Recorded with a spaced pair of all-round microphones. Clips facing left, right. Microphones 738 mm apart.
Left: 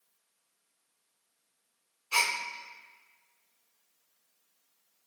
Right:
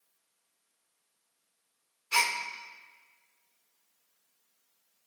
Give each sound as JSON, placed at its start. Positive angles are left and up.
{"t": 2.1, "sound": "a gasp", "side_deg": -50, "distance_m": 1.3}